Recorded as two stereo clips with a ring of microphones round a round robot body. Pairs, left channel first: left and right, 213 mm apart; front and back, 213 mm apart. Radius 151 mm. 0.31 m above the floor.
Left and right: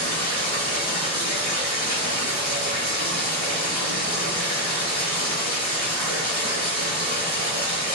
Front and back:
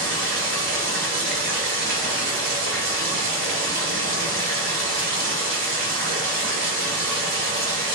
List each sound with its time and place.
0.0 s running water: 170° left, 2 m